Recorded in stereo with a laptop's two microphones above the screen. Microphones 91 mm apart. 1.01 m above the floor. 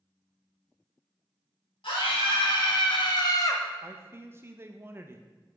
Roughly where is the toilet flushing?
No toilet flushing in this recording.